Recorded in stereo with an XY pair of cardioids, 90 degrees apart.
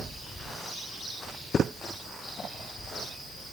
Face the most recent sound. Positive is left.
No sound to turn to.